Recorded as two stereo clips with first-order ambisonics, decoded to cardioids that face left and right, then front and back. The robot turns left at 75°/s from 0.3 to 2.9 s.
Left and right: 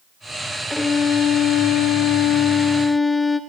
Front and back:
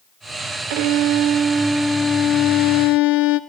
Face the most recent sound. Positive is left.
turn(degrees=10)